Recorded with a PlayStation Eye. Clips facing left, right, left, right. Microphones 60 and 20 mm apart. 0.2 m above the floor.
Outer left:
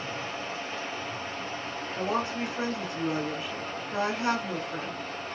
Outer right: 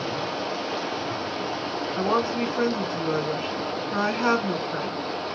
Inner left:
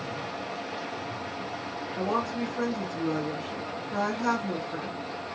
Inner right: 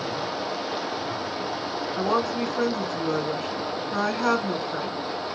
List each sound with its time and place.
0.0 s running water: 85° right, 0.7 m
2.0 s a woman speaking: 40° right (ahead or behind), 1.7 m